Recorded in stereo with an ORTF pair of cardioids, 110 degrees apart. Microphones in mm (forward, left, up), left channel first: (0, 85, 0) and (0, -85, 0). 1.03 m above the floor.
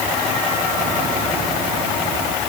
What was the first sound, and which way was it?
Only background noise.